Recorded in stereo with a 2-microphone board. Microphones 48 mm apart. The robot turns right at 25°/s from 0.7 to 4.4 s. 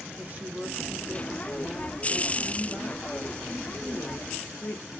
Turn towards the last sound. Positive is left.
turn(degrees=55)